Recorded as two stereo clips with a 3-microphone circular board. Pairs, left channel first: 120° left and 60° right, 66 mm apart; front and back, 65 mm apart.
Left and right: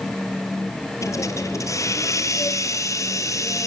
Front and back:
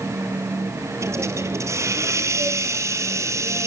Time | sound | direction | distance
1.0 | a hiss | 145° left | 2 m